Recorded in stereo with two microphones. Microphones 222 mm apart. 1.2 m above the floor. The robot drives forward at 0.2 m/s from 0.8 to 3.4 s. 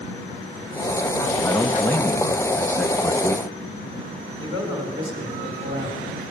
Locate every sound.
1.4 s a man speaking: 10° left (ahead or behind), 0.7 m
4.4 s a man speaking: 25° right (ahead or behind), 4 m